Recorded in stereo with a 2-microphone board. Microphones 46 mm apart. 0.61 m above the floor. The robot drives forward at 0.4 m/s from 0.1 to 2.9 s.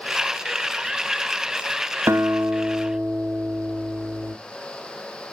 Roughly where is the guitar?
Right.